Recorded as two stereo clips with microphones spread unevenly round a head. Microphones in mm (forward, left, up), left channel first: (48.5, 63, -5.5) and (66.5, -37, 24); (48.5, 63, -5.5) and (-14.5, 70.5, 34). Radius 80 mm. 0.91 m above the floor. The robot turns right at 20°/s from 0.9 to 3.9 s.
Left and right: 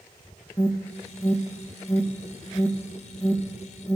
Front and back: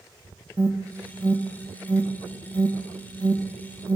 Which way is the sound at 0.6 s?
85° left.